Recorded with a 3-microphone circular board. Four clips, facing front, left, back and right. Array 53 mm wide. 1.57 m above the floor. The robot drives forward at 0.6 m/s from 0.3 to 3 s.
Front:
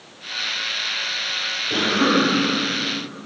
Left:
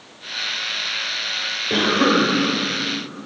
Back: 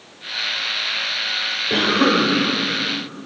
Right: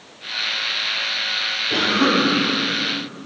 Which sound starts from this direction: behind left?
A cough, at 1.7 s.